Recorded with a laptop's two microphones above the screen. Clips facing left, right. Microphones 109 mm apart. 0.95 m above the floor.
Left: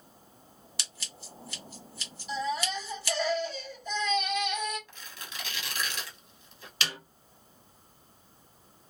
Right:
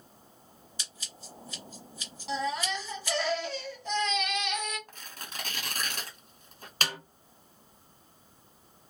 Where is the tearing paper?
45° right (ahead or behind), 1.0 m.